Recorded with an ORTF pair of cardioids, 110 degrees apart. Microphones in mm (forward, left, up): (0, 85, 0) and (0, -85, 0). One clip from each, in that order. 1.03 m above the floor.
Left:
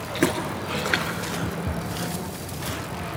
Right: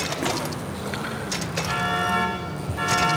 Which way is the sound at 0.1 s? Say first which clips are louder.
Left 2 dB; 55° left.